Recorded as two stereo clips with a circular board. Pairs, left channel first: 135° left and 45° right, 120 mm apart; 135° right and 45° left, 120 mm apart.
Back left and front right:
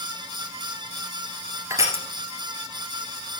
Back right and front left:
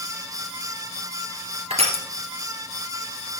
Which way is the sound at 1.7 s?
20° left.